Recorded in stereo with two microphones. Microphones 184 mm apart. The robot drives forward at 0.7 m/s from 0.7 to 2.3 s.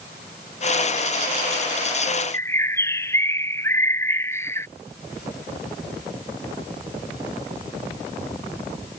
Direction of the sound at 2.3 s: 15° left (ahead or behind).